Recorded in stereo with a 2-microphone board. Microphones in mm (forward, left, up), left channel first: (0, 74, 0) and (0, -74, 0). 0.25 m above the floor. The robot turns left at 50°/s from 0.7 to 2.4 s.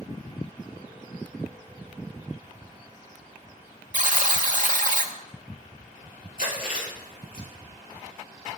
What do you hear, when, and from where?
3.9 s a buzzer: 60° right (ahead or behind), 0.6 m
6.4 s chewing: 70° left (ahead or behind), 3.5 m